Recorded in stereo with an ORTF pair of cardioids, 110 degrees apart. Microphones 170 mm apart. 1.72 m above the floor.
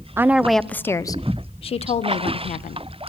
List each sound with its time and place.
0.2 s a woman speaking: 15° right, 1.0 m; by 2.9 s 50° left, 2 m